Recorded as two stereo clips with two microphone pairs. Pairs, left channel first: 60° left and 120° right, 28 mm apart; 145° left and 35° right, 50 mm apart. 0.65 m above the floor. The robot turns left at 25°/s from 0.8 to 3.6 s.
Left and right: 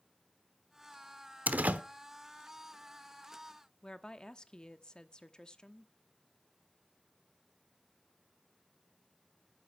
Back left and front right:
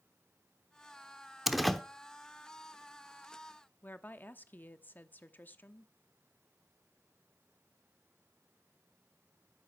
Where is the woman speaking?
105° left, 0.9 m.